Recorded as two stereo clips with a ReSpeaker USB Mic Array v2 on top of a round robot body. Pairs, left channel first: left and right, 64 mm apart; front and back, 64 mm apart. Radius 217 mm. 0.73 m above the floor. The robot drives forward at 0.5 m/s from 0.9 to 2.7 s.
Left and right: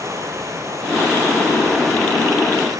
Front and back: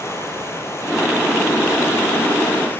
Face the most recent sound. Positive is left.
turn(degrees=-55)